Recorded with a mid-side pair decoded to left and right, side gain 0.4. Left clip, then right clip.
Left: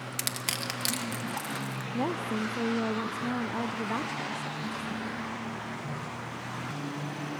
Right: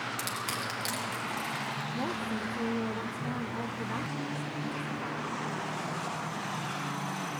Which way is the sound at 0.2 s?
55° left.